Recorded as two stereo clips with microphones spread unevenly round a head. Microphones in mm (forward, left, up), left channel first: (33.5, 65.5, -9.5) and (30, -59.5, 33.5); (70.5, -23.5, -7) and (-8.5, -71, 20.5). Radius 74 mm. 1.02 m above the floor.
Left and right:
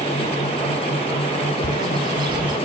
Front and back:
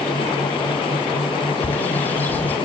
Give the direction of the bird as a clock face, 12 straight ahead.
2 o'clock.